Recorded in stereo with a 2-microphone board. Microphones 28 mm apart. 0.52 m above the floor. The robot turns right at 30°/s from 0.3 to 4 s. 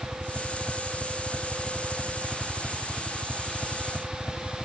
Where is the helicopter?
70° right; by 4.7 s 40° left.